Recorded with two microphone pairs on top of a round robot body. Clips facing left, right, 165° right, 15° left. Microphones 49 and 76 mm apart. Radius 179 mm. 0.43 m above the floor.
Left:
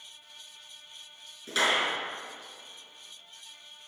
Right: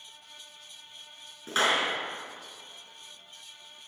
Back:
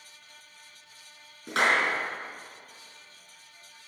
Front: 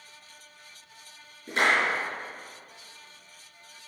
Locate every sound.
1.5 s a clap: 140° right, 4.5 m